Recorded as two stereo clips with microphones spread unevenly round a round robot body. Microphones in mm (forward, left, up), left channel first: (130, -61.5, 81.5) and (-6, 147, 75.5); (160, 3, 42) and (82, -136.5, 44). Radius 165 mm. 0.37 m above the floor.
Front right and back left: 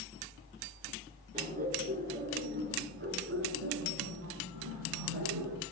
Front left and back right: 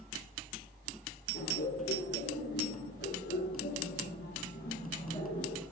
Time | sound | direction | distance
1.3 | laughter | 65° left | 7 m